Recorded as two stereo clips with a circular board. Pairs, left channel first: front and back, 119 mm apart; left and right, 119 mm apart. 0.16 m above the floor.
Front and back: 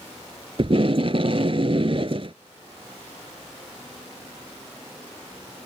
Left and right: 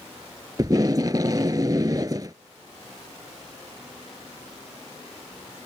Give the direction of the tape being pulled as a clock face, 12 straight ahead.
5 o'clock.